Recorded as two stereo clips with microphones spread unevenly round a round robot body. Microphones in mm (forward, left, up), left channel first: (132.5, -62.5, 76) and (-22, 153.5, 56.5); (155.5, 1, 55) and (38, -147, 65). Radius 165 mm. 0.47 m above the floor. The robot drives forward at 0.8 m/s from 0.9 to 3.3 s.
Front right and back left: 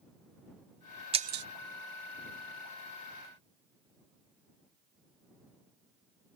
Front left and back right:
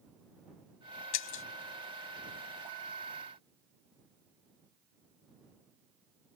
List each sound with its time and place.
1.1 s breaking glass: 55° left; by 1.4 s 80° left